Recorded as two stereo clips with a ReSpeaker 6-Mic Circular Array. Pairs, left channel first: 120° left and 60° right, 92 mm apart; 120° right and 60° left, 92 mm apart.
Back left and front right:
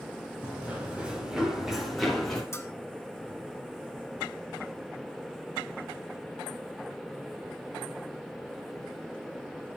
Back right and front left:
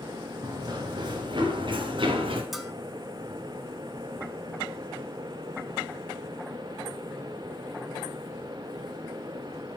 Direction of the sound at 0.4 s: 10° left.